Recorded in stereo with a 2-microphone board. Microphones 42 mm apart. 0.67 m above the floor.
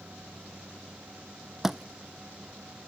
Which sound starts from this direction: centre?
A thud, at 1.6 s.